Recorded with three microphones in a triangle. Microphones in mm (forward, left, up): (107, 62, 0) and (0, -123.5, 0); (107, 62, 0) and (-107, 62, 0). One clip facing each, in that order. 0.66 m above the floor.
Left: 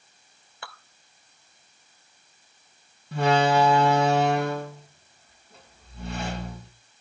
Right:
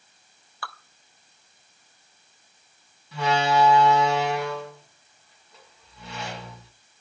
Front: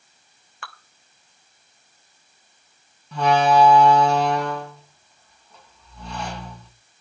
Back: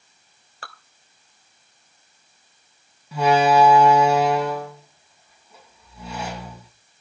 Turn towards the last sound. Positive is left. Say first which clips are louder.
# left 3 dB, back 1 dB
turn(degrees=100)